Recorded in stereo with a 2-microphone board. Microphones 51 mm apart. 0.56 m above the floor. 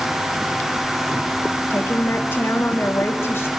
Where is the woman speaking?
45° left (ahead or behind), 3.5 m.